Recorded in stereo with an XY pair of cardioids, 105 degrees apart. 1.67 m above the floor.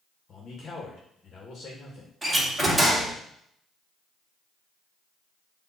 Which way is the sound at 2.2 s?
15° right.